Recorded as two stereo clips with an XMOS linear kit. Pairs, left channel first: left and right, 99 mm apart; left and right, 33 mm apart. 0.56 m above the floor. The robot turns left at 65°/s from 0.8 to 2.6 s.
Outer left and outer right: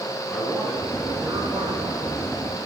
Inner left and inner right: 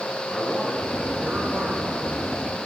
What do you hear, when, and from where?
0.3 s a man speaking: straight ahead, 5.5 m; by 2.3 s 100° right, 5.5 m